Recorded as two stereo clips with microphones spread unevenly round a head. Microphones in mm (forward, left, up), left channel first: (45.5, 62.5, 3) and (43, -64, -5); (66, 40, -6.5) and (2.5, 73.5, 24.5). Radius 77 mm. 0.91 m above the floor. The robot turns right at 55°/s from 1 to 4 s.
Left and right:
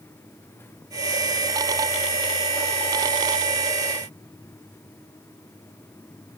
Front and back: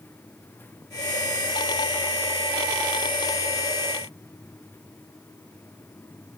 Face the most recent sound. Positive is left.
No sound to turn to.